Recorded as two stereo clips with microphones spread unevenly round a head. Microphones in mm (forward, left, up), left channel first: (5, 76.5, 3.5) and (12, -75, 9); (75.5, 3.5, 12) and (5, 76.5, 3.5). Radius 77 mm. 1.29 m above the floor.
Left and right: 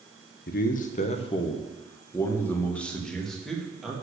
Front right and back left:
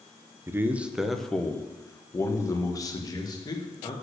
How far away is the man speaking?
About 0.8 m.